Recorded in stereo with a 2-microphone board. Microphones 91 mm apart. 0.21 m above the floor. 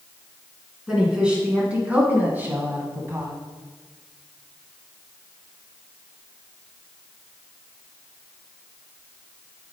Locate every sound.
0.9 s a woman speaking: 10° right (ahead or behind), 2.5 m; by 3.3 s 30° right (ahead or behind), 1.5 m